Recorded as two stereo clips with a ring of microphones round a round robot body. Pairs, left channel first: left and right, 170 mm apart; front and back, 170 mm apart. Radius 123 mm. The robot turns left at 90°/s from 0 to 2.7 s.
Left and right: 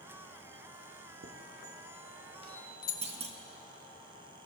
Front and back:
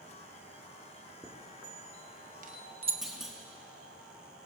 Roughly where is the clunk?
Right.